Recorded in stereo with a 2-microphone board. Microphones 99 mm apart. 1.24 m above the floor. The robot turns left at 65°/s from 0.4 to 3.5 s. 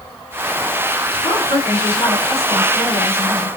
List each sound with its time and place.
1.2 s a woman speaking: 110° left, 2.5 m; by 3.5 s 35° right, 2.5 m